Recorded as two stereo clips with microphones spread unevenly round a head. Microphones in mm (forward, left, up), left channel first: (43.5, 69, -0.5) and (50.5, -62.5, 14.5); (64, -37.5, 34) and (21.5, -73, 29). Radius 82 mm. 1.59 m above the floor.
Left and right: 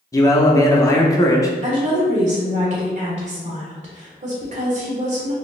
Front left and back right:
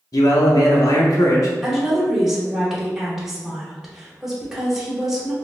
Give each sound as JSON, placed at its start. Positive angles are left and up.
{"t": 0.1, "sound": "a man speaking", "azimuth_deg": 25, "distance_m": 0.7}
{"t": 1.6, "sound": "a woman speaking", "azimuth_deg": -55, "distance_m": 1.4}